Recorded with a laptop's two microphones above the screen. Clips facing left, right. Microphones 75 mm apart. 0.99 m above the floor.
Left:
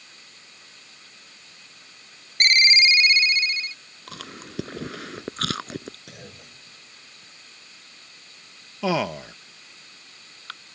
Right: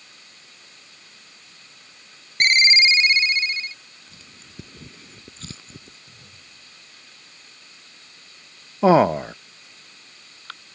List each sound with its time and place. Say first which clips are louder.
2.4 s a ringtone: right 2 dB; 25° right (ahead or behind)
4.1 s chewing: left 14 dB; 80° left
6.1 s a clunk: left 6 dB; 85° left
8.8 s a man speaking: right 10 dB; 35° right (ahead or behind)